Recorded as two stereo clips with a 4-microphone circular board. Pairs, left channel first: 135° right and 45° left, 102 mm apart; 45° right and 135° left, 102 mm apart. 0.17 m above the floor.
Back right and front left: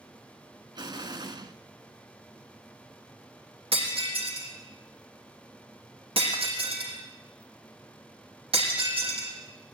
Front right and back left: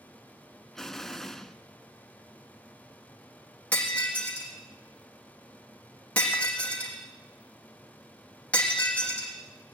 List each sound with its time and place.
0.8 s an explosion: 40° left, 1.2 m
3.7 s breaking glass: 30° left, 5.5 m